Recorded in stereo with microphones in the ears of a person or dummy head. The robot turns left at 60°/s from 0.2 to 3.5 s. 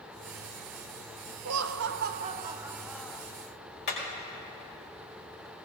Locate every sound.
1.4 s laughter: 90° right, 0.7 m; by 3.2 s 160° left, 0.7 m
3.9 s hammering: 60° left (ahead or behind), 5 m